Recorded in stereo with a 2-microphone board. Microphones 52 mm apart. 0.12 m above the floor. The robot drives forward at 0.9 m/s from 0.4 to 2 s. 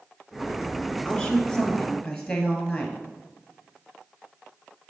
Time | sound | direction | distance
1.1 | a woman speaking | 15° left (ahead or behind) | 1.2 m